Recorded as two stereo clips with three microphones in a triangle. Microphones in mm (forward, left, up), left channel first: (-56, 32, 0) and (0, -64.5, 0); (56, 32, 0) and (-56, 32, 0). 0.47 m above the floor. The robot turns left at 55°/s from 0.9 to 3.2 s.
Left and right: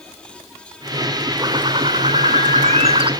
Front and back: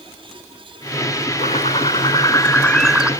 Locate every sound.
1.4 s a bird: 5° right, 0.5 m; by 3.1 s 100° right, 0.5 m